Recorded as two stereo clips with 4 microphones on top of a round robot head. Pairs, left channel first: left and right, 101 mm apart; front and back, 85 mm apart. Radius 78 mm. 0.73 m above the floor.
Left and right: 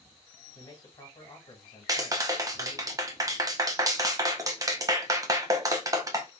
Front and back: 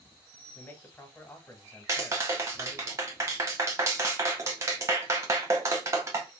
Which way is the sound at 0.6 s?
60° left.